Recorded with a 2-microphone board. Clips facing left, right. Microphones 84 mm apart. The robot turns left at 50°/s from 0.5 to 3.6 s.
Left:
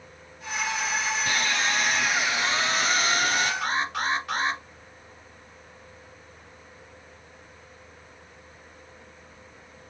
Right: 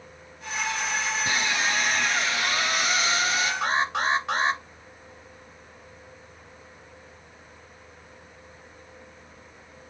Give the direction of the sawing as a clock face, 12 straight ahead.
5 o'clock.